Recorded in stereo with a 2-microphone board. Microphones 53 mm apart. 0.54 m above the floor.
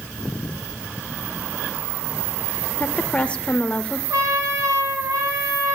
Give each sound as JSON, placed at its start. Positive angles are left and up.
{"t": 2.8, "sound": "a woman speaking", "side_deg": 20, "distance_m": 1.5}
{"t": 4.1, "sound": "a trumpet", "side_deg": -65, "distance_m": 5.0}